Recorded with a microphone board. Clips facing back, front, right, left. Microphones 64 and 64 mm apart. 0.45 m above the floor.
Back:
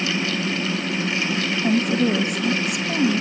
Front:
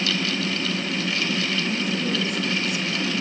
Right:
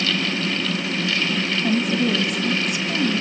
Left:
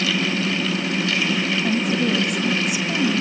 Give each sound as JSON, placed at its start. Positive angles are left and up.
{"t": 1.6, "sound": "a woman speaking", "azimuth_deg": -175, "distance_m": 2.5}